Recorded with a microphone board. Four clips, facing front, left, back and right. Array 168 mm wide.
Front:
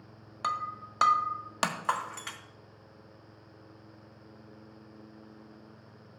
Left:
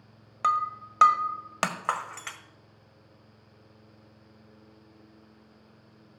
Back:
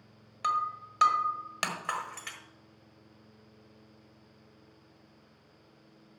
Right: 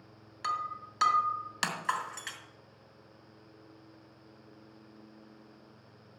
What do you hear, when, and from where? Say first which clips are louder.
0.4 s breaking glass: left 8 dB, back 3 dB; 70° left, 1.5 m